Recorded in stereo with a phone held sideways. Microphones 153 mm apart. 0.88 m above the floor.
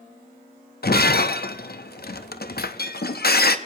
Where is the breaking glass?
75° left (ahead or behind), 0.7 m.